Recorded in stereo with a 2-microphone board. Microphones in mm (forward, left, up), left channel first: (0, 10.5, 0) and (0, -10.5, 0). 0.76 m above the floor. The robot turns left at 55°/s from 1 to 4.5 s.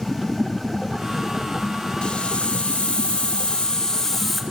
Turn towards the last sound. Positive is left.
turn(degrees=0)